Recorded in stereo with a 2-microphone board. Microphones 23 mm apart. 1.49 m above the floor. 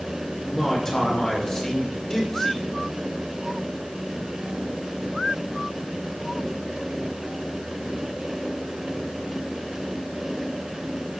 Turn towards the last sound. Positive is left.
turn(degrees=20)  # may be behind; listen again after turning